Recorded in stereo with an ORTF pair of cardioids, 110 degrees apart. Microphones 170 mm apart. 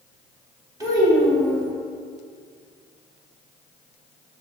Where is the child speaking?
20° right, 1.6 m.